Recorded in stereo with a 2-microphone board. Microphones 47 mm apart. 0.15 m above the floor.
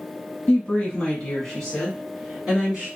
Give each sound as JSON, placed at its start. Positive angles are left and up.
{"t": 0.5, "sound": "a woman speaking", "side_deg": 30, "distance_m": 1.6}